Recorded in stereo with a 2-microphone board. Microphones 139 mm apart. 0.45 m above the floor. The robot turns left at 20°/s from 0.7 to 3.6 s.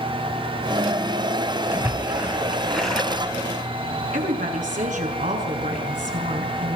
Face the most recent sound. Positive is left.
turn(degrees=-75)  # may be behind; listen again after turning